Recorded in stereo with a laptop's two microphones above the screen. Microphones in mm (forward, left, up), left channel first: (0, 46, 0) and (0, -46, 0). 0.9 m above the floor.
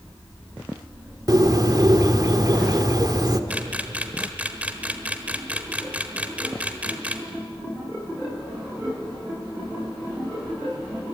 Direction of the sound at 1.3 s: 45° right (ahead or behind).